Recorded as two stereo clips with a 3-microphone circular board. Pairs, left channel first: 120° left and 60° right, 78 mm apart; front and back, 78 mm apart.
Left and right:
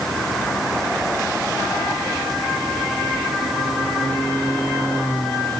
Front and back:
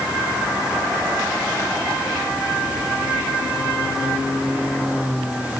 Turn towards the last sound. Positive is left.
No sound to turn to.